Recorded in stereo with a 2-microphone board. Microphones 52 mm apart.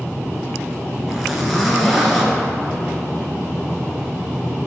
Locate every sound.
1.1 s a zipper: centre (ahead or behind), 1.3 m